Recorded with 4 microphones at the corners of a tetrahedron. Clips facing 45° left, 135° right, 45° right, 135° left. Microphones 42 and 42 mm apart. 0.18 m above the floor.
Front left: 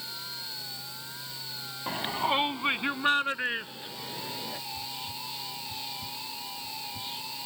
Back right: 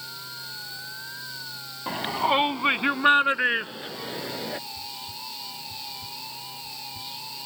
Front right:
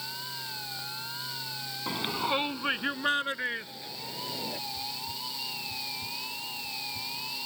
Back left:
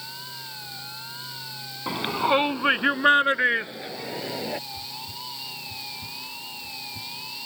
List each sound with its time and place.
1.9 s a shout: 160° left; by 4.6 s 175° left
4.7 s whispering: 105° left